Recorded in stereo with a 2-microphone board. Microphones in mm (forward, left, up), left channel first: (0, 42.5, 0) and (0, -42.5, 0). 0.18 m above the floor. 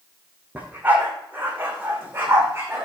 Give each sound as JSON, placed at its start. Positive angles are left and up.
{"t": 0.6, "sound": "a dog barking", "side_deg": -20, "distance_m": 4.5}